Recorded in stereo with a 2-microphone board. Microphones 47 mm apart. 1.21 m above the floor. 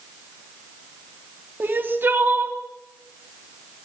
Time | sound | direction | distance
1.6 | crying | 40° right (ahead or behind) | 2.5 m